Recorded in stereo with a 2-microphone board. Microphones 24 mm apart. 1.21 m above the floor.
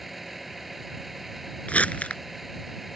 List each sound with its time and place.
0.0 s a vehicle: 5° right (ahead or behind)
1.7 s crumpling: 70° left (ahead or behind)